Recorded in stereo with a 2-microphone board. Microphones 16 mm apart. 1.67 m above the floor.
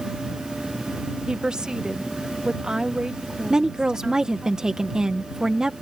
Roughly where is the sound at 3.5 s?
Right.